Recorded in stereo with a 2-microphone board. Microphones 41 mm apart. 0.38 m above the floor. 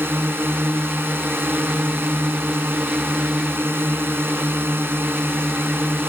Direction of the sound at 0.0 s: 70° right (ahead or behind).